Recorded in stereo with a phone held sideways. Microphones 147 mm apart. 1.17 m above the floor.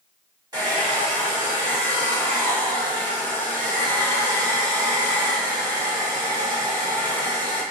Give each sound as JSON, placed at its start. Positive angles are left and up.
{"t": 0.5, "sound": "a hair dryer", "side_deg": -25, "distance_m": 1.5}